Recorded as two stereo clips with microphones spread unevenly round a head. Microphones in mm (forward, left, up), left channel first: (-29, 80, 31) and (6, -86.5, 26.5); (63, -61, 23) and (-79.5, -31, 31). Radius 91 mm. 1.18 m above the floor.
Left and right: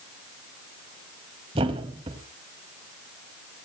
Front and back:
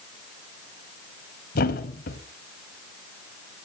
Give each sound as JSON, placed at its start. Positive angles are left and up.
{"t": 1.6, "sound": "a thud", "azimuth_deg": -20, "distance_m": 1.8}